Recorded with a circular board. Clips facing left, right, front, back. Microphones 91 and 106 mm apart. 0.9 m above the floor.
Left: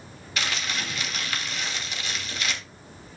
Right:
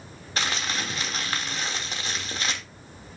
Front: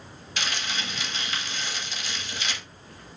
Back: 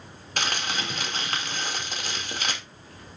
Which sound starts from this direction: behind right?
Crumpling, at 0.4 s.